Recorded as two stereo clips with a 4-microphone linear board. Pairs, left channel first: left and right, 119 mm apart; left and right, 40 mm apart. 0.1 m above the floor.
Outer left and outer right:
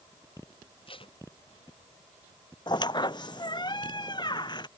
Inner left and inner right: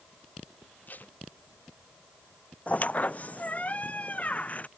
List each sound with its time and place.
0.9 s tape being pulled: 45° left (ahead or behind)
2.7 s a squeak: 40° left (ahead or behind)